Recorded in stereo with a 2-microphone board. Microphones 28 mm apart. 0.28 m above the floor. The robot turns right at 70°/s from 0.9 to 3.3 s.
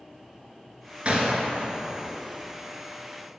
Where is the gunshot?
45° right (ahead or behind), 1.0 m; by 2.2 s 55° right (ahead or behind), 1.0 m.